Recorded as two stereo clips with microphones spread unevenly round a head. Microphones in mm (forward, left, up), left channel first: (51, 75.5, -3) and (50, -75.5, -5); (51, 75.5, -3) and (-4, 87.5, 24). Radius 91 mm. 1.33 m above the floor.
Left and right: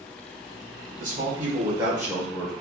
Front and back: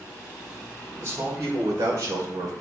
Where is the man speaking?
135° right, 1.4 m; by 2.5 s 175° left, 1.1 m.